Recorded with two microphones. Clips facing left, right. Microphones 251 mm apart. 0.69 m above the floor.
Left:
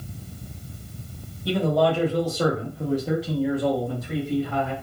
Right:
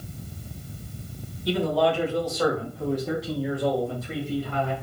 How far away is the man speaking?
About 1.4 m.